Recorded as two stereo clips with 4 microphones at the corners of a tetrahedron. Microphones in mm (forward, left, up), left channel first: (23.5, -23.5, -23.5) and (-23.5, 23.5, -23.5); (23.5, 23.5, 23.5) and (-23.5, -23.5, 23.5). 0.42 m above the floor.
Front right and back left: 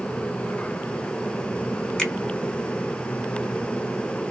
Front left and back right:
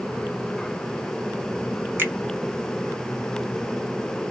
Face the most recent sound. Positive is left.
turn(degrees=-115)